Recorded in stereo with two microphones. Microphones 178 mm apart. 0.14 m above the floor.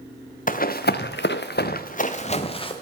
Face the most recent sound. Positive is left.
turn(degrees=30)  # may be behind; listen again after turning